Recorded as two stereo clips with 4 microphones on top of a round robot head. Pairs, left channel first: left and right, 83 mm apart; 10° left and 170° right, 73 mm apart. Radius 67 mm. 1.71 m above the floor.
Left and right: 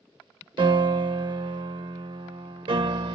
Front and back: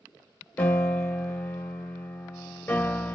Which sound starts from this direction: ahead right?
A piano, at 0.6 s.